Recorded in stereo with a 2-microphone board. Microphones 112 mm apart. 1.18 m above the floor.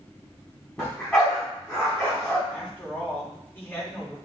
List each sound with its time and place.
0.8 s a dog barking: 5° left (ahead or behind), 3.5 m
2.5 s a woman speaking: 15° left (ahead or behind), 3 m